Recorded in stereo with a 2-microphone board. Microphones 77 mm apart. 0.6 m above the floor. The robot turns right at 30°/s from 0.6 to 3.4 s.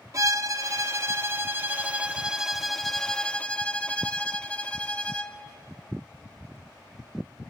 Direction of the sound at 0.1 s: 65° right.